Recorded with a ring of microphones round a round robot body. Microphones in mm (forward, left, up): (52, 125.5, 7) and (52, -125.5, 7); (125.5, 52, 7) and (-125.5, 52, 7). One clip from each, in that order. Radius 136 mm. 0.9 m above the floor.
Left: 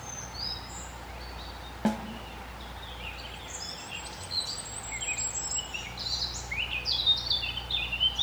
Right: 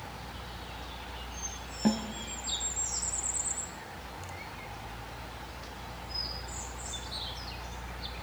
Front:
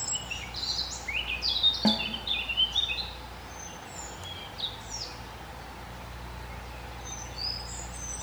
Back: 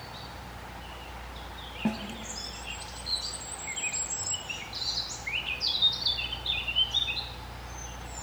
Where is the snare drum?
30° left, 1.6 m.